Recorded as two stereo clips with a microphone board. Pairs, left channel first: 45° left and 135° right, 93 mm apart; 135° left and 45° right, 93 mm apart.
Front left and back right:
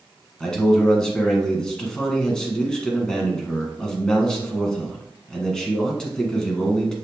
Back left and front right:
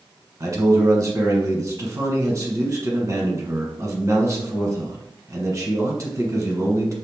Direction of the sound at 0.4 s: 35° right.